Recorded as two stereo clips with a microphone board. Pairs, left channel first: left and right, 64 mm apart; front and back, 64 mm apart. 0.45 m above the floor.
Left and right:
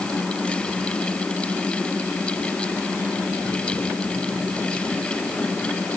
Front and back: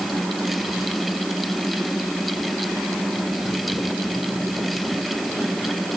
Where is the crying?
I don't hear crying.